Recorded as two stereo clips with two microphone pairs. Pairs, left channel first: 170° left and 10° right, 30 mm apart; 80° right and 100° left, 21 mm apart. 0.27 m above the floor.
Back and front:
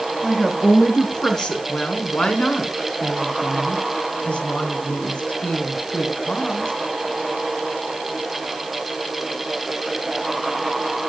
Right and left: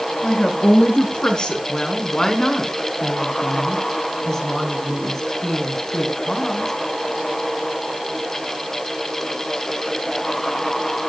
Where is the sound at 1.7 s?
140° right, 3 m.